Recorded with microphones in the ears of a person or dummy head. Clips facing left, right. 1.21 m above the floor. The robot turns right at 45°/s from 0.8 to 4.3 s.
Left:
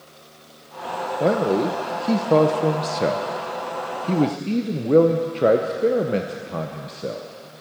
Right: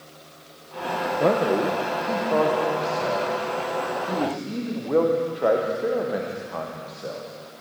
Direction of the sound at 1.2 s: 10° left.